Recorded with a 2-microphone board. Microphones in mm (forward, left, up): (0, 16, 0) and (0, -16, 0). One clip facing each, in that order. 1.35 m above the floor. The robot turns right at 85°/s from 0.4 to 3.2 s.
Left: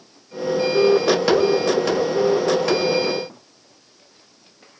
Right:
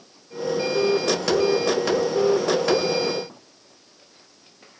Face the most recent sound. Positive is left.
No sound to turn to.